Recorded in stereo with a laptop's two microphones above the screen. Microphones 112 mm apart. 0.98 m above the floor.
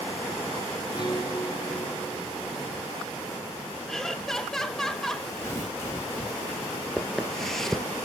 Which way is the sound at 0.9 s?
40° left (ahead or behind).